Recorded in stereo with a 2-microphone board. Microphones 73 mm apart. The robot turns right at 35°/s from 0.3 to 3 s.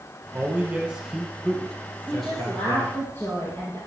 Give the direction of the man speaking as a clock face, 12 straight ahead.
1 o'clock.